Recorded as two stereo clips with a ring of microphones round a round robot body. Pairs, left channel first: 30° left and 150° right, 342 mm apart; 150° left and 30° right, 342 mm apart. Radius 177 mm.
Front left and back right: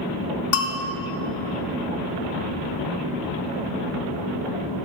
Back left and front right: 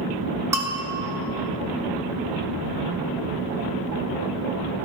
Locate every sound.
0.5 s a bell: 50° left, 1.0 m